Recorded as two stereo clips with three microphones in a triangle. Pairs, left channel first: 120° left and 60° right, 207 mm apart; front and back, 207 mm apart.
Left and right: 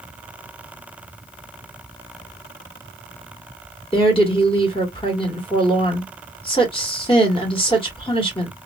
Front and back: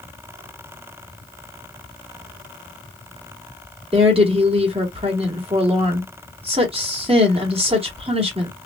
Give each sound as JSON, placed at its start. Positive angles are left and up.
{"t": 3.9, "sound": "a woman speaking", "azimuth_deg": 155, "distance_m": 1.3}